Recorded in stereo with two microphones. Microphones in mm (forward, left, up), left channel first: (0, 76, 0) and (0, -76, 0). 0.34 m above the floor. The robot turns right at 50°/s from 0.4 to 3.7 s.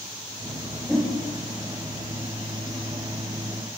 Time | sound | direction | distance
0.9 | a whoosh | 5° left (ahead or behind) | 6.5 m